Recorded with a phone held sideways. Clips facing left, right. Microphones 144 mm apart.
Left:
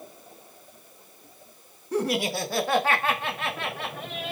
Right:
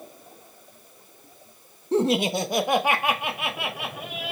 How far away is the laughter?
About 1.1 m.